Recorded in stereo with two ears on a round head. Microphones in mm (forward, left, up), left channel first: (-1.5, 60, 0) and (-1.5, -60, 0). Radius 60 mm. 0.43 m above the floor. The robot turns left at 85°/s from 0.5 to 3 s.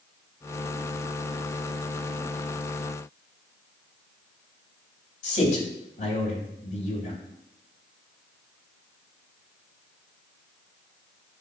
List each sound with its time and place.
5.2 s a man speaking: 65° left (ahead or behind), 3 m